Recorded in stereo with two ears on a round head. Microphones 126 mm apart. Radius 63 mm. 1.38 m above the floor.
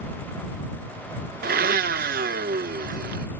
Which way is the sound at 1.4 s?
65° right (ahead or behind).